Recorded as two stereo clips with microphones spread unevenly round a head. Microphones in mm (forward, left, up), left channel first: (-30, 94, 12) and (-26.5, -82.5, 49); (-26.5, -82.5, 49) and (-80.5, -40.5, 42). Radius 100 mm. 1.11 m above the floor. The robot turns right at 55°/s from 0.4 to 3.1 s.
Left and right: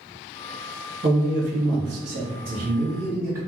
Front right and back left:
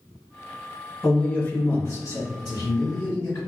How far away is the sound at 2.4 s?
About 1.7 m.